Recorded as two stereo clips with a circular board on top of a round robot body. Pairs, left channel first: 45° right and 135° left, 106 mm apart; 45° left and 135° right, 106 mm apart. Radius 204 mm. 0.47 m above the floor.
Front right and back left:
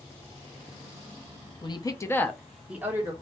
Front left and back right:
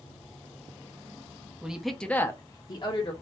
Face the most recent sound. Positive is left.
turn(degrees=75)